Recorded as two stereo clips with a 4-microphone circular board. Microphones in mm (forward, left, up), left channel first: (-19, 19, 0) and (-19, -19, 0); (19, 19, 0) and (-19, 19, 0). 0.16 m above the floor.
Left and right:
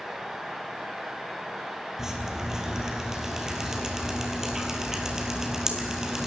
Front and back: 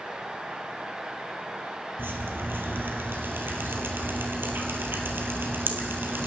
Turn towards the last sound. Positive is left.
turn(degrees=-165)